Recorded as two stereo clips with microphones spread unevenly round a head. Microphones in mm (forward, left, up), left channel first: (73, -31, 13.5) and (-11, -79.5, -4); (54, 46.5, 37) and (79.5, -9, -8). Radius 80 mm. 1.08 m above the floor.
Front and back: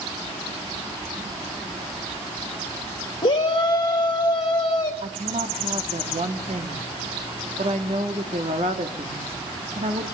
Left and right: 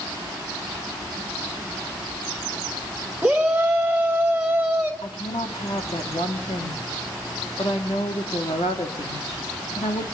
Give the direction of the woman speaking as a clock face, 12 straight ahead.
7 o'clock.